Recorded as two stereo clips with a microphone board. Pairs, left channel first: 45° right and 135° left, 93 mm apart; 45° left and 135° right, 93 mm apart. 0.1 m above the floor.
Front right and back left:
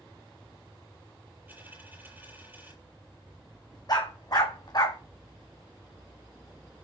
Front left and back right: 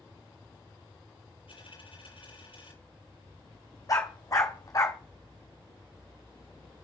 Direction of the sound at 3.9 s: 5° right.